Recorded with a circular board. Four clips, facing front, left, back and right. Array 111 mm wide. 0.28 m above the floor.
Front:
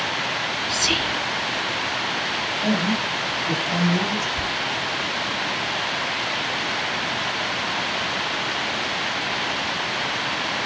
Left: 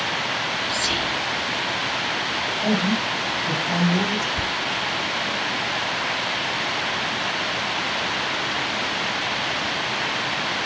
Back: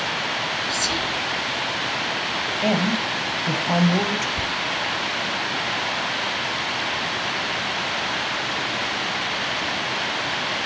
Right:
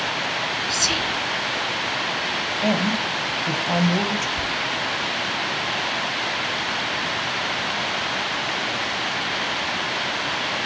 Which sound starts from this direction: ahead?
Whispering, at 0.7 s.